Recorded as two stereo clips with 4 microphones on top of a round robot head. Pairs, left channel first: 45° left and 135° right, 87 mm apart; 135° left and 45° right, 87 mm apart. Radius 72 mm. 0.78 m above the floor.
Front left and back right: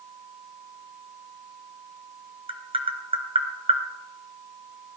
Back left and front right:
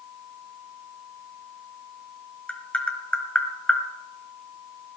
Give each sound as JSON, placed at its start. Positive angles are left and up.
{"t": 2.5, "sound": "tapping", "azimuth_deg": -150, "distance_m": 1.4}